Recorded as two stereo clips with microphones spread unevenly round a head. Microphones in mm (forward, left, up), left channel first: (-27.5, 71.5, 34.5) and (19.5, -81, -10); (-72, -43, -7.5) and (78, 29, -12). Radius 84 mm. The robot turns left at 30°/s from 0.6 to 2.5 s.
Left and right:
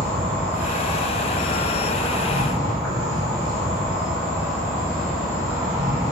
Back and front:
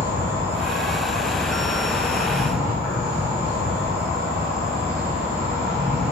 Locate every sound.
0.0 s an insect: 165° left, 1.0 m; by 6.1 s 110° left, 1.0 m